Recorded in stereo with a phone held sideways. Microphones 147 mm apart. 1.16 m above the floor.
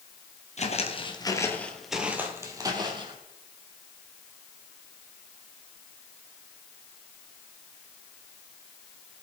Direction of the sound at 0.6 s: 50° left (ahead or behind).